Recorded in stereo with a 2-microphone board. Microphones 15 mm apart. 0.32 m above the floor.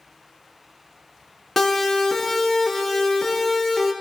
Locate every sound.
1.6 s a siren: 15° left (ahead or behind), 4 m; by 3.9 s 5° right (ahead or behind), 6 m